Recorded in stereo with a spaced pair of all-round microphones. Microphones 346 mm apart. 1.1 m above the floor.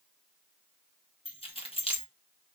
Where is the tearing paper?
No tearing paper in this recording.